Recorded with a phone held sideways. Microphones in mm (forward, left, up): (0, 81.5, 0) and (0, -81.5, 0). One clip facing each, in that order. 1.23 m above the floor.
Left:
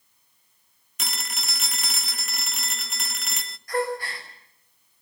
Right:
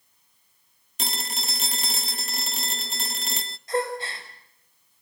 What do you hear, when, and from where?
1.0 s a phone ringing: 30° right (ahead or behind), 0.6 m
3.7 s a gasp: 25° right (ahead or behind), 5 m